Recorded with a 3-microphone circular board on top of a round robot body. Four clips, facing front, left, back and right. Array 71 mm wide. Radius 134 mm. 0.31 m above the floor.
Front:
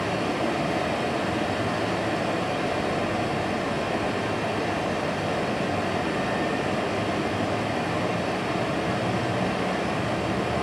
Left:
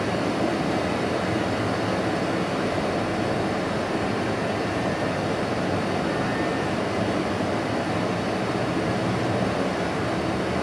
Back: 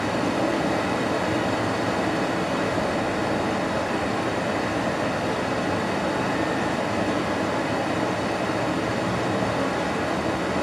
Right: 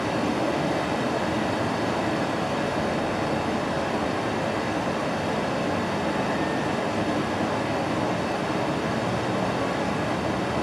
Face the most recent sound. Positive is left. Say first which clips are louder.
# left 1 dB, back 2 dB
turn(degrees=170)